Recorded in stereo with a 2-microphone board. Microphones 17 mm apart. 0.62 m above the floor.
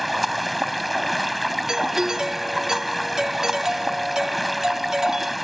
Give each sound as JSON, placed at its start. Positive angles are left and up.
{"t": 0.0, "sound": "running water", "side_deg": 0}
{"t": 1.7, "sound": "a doorbell", "side_deg": -30}